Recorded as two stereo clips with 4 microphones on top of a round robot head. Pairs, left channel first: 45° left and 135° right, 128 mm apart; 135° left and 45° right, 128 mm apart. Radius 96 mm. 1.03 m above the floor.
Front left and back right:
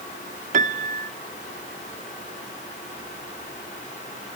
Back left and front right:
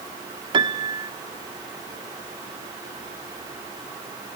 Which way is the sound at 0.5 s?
100° right.